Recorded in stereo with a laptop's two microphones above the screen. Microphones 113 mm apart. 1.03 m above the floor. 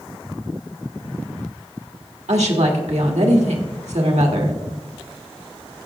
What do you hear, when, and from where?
2.3 s a woman speaking: 85° right, 1.8 m